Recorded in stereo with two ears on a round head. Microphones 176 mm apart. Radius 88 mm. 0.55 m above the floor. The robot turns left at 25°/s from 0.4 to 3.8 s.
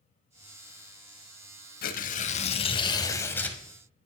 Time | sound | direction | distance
1.8 | tearing paper | 50° left | 0.6 m